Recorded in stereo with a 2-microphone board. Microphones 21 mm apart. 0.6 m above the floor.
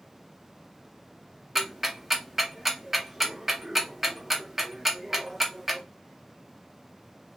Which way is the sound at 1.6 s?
10° right (ahead or behind).